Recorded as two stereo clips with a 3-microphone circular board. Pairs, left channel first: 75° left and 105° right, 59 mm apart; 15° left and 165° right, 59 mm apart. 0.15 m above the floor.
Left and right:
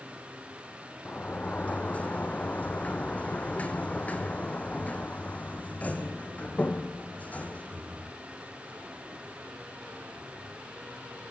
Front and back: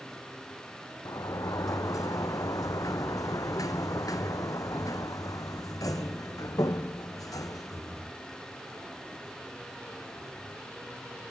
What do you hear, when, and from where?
1.1 s a sliding door: 10° left, 1.5 m